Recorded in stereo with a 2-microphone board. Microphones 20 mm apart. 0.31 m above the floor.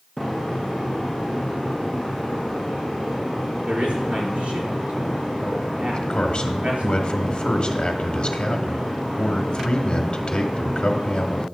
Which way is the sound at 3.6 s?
75° right (ahead or behind).